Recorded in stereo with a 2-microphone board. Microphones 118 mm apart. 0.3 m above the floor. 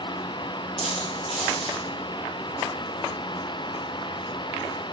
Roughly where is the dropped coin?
Centre.